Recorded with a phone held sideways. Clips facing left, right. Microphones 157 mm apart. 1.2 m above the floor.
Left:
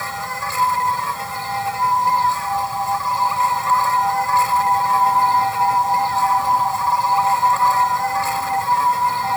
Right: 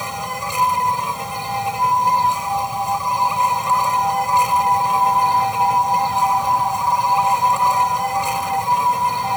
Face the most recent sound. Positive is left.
turn(degrees=-20)  # may be behind; listen again after turning